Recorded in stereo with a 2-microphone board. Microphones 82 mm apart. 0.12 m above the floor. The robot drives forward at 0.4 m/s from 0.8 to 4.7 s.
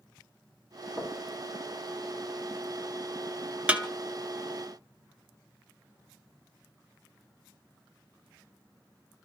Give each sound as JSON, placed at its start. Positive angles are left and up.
{"t": 1.0, "sound": "knocking", "side_deg": -20, "distance_m": 3.5}
{"t": 3.7, "sound": "a snare drum", "side_deg": -15, "distance_m": 1.2}